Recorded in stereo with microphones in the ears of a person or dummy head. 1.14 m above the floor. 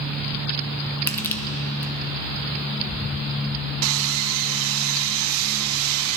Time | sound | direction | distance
1.1 | crushing | 20° left (ahead or behind) | 0.6 m
3.8 | sawing | 65° right (ahead or behind) | 0.7 m